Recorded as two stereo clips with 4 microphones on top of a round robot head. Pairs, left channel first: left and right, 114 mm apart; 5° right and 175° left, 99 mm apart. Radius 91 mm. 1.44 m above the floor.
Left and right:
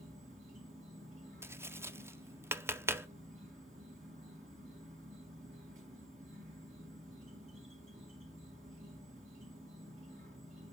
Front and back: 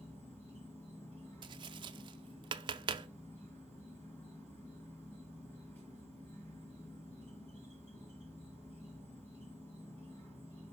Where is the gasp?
No gasp in this recording.